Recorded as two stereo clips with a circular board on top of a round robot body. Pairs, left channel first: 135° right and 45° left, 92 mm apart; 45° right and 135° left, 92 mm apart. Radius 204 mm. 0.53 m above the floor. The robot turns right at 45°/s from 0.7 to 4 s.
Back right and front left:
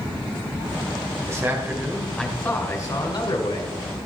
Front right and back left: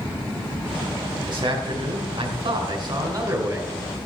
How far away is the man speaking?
About 3.5 m.